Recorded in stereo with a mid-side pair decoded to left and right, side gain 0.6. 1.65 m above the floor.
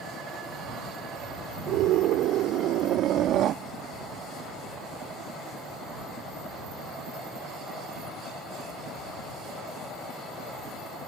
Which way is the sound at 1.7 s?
65° right.